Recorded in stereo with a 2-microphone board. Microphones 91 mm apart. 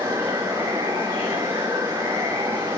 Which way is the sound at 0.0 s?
30° right (ahead or behind).